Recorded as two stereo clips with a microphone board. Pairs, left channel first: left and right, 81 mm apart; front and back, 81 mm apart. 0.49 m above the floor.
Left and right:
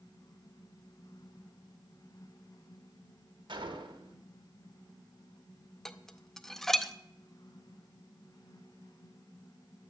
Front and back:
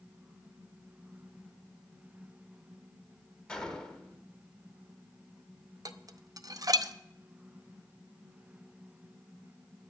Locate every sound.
3.5 s a gunshot: 80° right, 1.4 m
5.8 s dishes clattering: 175° left, 0.5 m